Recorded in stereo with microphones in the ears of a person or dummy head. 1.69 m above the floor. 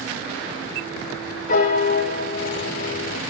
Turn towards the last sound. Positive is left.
turn(degrees=50)  # may be behind; listen again after turning